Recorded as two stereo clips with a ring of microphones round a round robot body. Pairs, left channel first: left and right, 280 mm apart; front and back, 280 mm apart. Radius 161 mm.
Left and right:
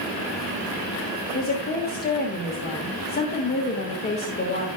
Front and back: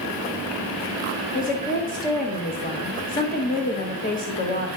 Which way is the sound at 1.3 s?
45° left.